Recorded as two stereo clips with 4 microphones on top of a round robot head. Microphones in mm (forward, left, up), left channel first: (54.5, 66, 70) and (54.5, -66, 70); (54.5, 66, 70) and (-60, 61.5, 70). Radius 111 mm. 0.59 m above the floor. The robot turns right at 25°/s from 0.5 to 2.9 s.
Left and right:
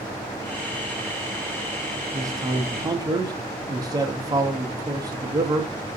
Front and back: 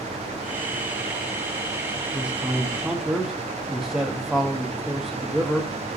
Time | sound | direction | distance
2.1 | a man speaking | 115° right | 0.6 m